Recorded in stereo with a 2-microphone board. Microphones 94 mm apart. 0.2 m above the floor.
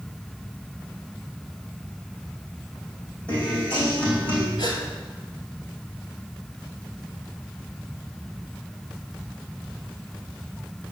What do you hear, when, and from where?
3.3 s a guitar: 15° left (ahead or behind), 5 m
4.6 s a gasp: 45° left (ahead or behind), 2.5 m